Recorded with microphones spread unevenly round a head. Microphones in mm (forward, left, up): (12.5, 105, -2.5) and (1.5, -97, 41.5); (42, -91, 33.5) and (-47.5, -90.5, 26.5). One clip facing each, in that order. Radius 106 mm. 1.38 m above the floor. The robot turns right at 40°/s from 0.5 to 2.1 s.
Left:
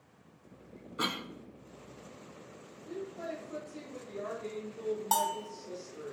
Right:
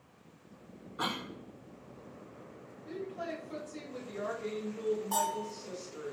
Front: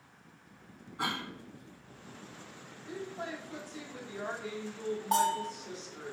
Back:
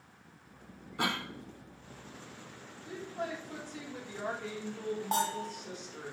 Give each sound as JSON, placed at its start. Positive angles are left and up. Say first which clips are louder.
{"t": 1.0, "sound": "a cough", "louder": "left 1 dB, back 2 dB", "azimuth_deg": 145, "distance_m": 0.8}
{"t": 2.9, "sound": "a woman speaking", "louder": "even, back 1 dB", "azimuth_deg": -150, "distance_m": 4.0}
{"t": 5.1, "sound": "a bell", "louder": "even, front 5 dB", "azimuth_deg": 100, "distance_m": 1.4}